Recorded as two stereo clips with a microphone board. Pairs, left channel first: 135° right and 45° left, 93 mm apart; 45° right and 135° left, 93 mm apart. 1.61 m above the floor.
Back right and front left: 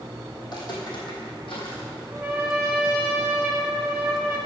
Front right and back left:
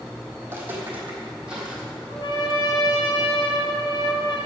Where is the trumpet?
30° right, 2.5 m.